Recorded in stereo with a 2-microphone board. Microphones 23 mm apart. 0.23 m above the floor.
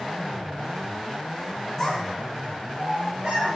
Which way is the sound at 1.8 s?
20° left (ahead or behind).